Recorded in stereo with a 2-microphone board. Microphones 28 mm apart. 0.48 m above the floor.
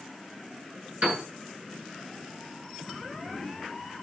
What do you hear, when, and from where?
1.0 s a piano: 55° right (ahead or behind), 7.5 m